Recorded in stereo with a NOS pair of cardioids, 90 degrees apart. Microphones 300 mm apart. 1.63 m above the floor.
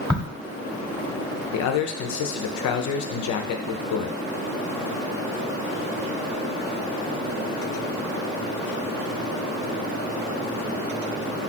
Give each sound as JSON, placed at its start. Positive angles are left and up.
{"t": 0.1, "sound": "a crack", "azimuth_deg": 0, "distance_m": 1.0}
{"t": 1.5, "sound": "a man speaking", "azimuth_deg": 65, "distance_m": 0.7}